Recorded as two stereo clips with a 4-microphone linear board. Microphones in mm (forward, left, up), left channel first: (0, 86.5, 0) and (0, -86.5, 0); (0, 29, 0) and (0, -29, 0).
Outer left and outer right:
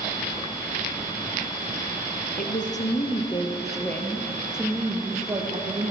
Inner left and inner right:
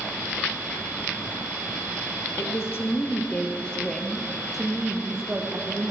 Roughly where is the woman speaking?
Left.